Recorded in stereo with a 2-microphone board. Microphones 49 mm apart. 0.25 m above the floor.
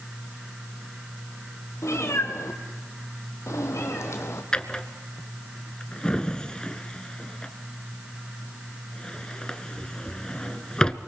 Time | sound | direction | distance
1.8 | a cat meowing | 80° left | 2 m
4.5 | a drawer | 20° left (ahead or behind) | 1.1 m